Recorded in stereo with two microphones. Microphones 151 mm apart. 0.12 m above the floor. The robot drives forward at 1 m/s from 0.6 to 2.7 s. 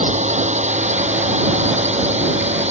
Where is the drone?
50° right (ahead or behind); by 2.7 s 45° right (ahead or behind).